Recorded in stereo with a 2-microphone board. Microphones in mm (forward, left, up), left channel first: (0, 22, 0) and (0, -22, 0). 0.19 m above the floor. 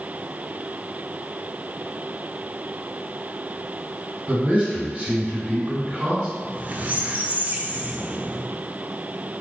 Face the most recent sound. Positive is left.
turn(degrees=-35)  # may be behind; listen again after turning